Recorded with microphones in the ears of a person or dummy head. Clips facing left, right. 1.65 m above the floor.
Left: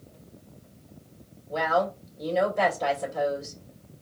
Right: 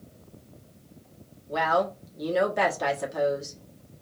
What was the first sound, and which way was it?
A woman speaking, 75° right (ahead or behind).